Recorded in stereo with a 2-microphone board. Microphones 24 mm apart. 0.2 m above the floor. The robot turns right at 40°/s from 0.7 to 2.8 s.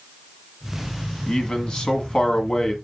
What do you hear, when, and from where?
1.3 s a man speaking: 80° left, 2 m; by 2.8 s 135° left, 2 m